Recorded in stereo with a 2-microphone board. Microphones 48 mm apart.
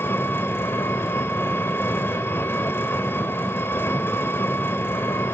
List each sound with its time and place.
0.0 s an engine running: 50° left (ahead or behind), 2 m